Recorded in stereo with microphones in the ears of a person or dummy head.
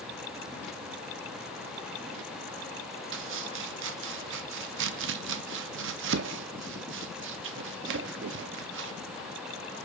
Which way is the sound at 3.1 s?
65° right (ahead or behind).